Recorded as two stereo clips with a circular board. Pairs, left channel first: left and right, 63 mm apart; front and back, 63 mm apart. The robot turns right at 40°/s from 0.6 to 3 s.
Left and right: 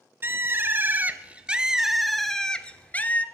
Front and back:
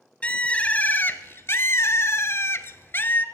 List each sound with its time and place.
0.2 s a bird: 60° right, 0.7 m; by 3.2 s 35° left, 0.7 m